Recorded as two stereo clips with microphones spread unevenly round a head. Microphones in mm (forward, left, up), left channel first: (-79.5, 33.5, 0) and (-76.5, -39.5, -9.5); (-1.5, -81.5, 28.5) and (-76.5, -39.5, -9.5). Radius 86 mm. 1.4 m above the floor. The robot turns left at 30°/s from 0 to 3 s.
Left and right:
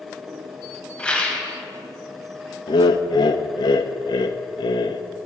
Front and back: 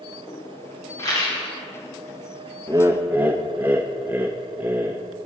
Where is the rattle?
15° left, 1.7 m; by 1.4 s 5° left, 1.7 m.